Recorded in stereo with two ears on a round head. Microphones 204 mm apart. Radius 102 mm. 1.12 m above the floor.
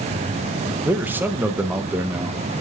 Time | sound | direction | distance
0.8 | a man speaking | 10° right (ahead or behind) | 0.6 m